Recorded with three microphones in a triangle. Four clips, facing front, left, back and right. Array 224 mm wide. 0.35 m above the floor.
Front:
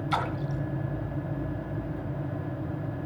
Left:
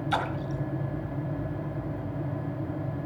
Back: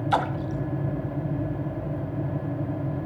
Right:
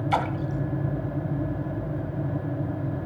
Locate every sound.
0.1 s a splash: 155° right, 1.6 m